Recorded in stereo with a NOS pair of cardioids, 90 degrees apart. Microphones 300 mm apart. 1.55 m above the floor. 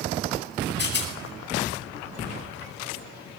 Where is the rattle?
40° left, 9.5 m.